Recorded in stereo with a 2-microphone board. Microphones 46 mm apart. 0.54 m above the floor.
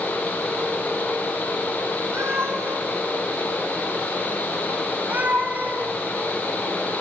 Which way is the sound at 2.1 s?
65° right (ahead or behind).